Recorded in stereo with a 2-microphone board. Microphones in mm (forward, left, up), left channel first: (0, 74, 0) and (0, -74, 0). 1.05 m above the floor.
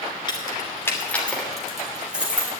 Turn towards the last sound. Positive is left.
turn(degrees=-10)  # may be behind; listen again after turning